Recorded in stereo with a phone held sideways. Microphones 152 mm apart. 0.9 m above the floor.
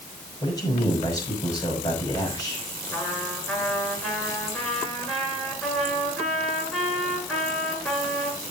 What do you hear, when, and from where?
0.4 s a man speaking: 25° left (ahead or behind), 5.5 m
2.9 s a trumpet: 5° left (ahead or behind), 7 m